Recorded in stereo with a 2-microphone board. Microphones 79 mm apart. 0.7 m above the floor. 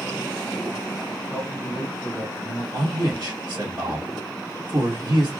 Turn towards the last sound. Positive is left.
turn(degrees=-60)  # may be behind; listen again after turning